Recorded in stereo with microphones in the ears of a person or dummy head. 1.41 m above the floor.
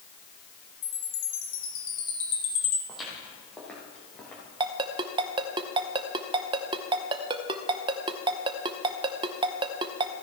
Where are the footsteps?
Centre (ahead or behind), 3 m; by 4.4 s 5° left (ahead or behind), 4 m.